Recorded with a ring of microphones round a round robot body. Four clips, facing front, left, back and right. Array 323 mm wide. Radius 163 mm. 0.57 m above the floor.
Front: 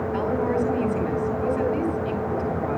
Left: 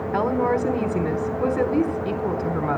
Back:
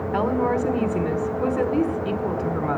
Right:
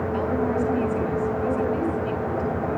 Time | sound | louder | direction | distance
0.1 | a woman speaking | left 4 dB, back 3 dB | 125° left | 4 m